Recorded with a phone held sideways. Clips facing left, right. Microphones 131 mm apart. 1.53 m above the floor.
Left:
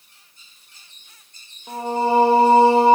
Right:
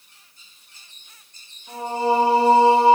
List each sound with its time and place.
1.7 s singing: 55° left (ahead or behind), 1.7 m